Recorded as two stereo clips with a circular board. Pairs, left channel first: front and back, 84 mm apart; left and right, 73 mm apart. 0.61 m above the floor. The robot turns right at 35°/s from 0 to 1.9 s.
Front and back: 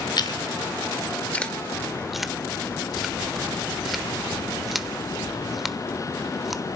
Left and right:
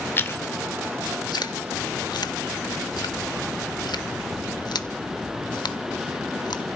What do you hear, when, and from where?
0.2 s chewing: 30° left, 0.9 m; by 6.8 s 95° left, 0.9 m